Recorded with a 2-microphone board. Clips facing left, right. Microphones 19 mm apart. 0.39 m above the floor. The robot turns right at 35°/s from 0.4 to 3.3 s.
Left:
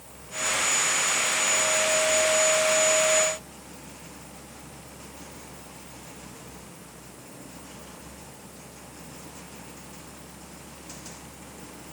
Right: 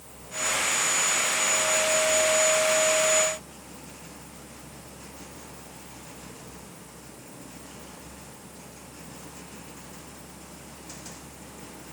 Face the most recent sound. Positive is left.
No sound to turn to.